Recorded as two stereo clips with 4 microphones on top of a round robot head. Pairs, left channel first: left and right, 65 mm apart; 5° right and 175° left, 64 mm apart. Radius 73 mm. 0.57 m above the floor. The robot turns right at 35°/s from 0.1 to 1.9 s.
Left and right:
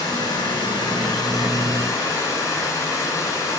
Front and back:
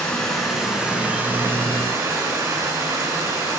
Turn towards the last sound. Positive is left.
turn(degrees=135)